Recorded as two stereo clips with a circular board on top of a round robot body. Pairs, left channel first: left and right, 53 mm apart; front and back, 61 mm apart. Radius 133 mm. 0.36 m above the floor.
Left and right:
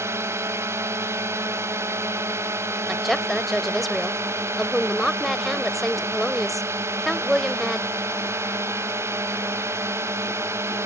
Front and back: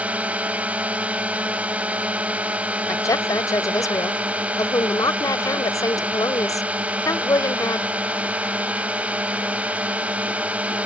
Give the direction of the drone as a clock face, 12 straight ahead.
4 o'clock.